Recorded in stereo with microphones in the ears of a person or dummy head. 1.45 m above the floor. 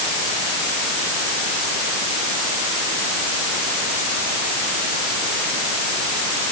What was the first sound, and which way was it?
Only background noise.